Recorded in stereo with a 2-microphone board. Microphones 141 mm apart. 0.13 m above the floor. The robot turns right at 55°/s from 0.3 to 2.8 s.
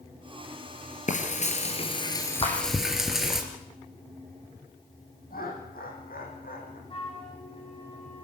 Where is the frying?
90° left, 3 m; by 3.4 s 175° right, 3 m.